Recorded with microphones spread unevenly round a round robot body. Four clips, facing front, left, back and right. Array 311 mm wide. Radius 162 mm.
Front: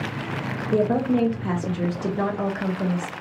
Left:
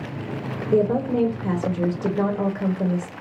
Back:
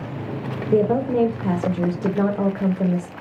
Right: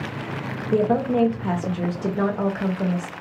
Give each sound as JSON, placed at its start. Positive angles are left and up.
{"t": 0.7, "sound": "a woman speaking", "azimuth_deg": 155, "distance_m": 1.0}